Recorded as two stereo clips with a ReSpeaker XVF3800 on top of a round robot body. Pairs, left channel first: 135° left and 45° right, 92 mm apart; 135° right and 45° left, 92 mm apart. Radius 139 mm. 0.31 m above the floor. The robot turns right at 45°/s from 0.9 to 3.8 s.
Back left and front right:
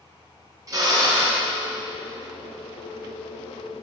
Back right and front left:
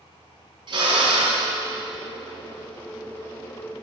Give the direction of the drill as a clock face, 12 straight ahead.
12 o'clock.